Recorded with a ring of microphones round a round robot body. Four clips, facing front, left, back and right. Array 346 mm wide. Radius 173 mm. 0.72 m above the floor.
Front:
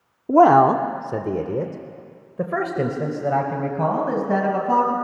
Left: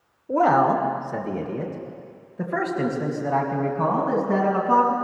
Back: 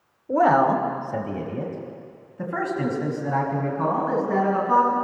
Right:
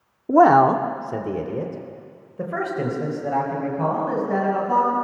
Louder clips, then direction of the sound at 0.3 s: Right 5 dB, front 5 dB; 45° right.